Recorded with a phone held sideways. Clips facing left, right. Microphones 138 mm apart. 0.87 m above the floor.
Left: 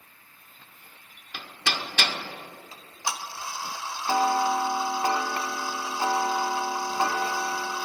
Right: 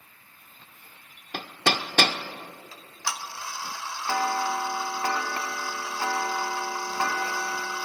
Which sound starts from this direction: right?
Hammering, at 1.3 s.